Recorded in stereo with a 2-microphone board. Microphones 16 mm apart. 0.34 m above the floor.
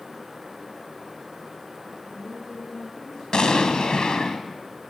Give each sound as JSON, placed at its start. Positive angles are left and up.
{"t": 2.0, "sound": "a woman speaking", "side_deg": 65, "distance_m": 8.5}
{"t": 3.3, "sound": "an explosion", "side_deg": 55, "distance_m": 2.5}